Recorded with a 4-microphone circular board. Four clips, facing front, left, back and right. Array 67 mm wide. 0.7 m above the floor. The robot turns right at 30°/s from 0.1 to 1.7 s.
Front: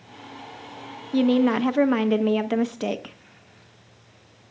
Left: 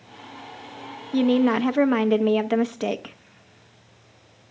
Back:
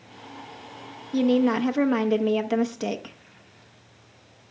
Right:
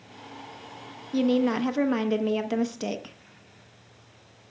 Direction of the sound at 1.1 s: 50° left.